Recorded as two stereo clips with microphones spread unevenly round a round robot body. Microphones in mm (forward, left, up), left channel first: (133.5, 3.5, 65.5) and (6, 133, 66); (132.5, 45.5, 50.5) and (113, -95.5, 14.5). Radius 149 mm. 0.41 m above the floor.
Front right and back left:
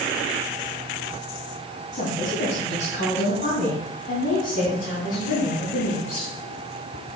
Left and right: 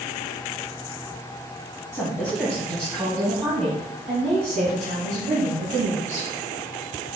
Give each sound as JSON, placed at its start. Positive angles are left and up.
{"t": 1.9, "sound": "a woman speaking", "azimuth_deg": -10, "distance_m": 3.0}